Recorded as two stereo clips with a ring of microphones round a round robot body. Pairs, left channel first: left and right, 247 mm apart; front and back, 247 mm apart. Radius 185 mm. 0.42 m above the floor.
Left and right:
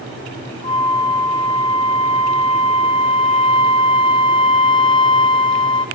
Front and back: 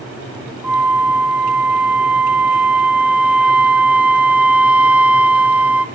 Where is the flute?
105° left, 0.6 m.